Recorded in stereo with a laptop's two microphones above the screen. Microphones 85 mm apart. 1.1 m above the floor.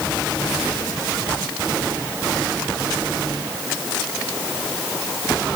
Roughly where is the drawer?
No drawer in this recording.